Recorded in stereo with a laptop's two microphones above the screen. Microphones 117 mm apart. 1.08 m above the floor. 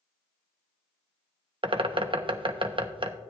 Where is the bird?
45° right (ahead or behind), 0.6 m.